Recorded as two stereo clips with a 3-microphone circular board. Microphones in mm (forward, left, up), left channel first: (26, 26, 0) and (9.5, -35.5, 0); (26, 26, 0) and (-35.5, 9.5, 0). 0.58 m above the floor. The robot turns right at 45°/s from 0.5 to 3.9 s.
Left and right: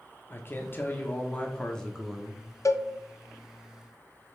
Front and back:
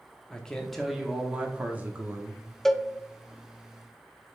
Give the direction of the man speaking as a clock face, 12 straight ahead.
9 o'clock.